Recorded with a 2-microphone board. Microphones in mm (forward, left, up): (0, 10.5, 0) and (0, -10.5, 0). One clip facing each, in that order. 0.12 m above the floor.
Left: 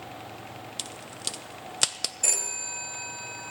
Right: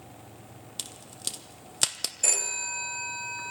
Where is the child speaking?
I don't hear a child speaking.